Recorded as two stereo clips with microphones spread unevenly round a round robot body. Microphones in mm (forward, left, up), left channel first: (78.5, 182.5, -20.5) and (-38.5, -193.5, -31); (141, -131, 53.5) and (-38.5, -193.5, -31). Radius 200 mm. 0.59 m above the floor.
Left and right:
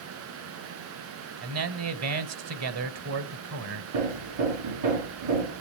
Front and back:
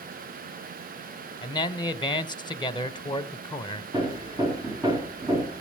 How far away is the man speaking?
About 2.0 m.